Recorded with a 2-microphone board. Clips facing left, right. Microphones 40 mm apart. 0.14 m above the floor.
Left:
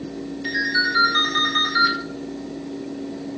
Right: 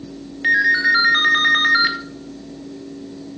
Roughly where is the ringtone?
Right.